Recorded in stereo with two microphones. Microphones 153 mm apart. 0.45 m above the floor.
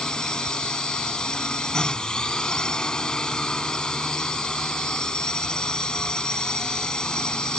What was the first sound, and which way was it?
A drone, 5° left (ahead or behind).